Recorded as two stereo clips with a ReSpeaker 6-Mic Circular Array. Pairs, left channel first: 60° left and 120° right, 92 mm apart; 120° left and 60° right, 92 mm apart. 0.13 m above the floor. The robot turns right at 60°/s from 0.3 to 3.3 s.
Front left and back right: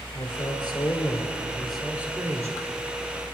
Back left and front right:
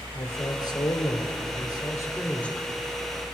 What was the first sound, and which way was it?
A man speaking, 65° left.